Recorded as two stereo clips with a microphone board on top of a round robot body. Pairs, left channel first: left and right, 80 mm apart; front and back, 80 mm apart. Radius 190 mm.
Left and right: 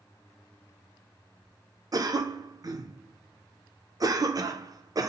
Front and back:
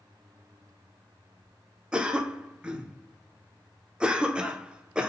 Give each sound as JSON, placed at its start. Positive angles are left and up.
{"t": 1.9, "sound": "a cough", "azimuth_deg": -105, "distance_m": 0.7}